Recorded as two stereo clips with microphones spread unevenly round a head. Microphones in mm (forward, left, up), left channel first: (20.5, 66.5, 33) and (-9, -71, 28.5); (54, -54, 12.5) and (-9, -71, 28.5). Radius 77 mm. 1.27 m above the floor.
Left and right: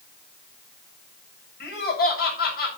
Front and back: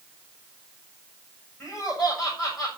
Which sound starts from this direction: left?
Laughter, at 1.6 s.